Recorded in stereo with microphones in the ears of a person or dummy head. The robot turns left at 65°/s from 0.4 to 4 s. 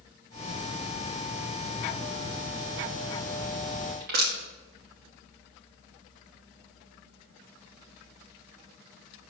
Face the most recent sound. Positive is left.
turn(degrees=-50)  # may be behind; listen again after turning